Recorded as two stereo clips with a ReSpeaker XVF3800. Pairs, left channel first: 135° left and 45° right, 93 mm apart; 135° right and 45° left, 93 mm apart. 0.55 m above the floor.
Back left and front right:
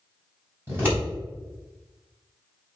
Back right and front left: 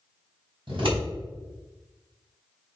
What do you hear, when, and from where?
0.7 s scissors: 20° left, 3 m